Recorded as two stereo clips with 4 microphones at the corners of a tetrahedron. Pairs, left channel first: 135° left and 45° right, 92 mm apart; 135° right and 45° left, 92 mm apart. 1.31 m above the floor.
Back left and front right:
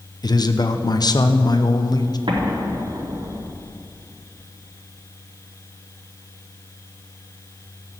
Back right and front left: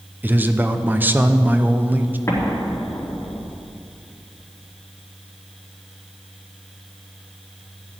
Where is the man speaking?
110° left, 0.8 m.